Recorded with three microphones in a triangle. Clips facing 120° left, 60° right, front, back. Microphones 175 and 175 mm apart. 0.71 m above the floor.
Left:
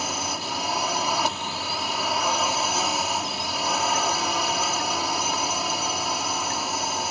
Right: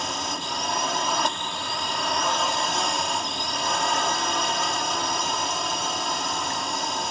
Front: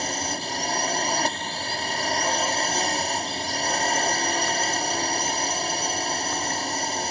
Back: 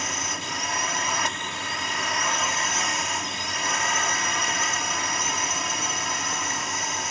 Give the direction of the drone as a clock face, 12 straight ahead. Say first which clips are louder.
Left 1 dB, front 4 dB; 11 o'clock.